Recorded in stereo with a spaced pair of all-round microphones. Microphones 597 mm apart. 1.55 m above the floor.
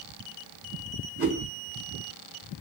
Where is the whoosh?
20° right (ahead or behind), 2.5 m.